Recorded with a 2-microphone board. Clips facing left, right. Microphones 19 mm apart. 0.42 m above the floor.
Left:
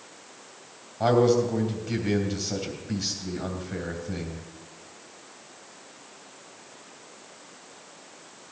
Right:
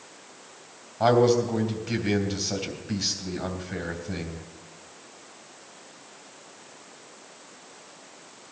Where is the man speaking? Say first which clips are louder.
Right 1 dB; 10° right (ahead or behind), 3 m.